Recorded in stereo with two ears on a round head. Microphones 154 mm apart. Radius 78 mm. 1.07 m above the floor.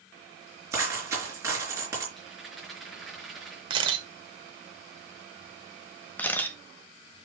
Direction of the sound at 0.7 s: 15° right (ahead or behind).